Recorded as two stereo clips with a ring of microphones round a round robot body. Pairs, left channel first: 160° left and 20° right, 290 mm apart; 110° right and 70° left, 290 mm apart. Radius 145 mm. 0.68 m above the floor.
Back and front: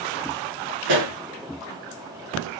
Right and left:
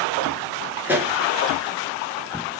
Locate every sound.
0.8 s a pop: 15° right, 2.5 m